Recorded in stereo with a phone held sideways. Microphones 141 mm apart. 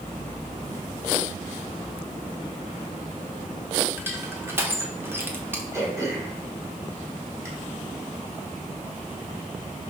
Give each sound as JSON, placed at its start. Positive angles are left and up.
{"t": 4.0, "sound": "crushing", "side_deg": -15, "distance_m": 1.2}
{"t": 5.7, "sound": "throat clearing", "side_deg": -20, "distance_m": 2.0}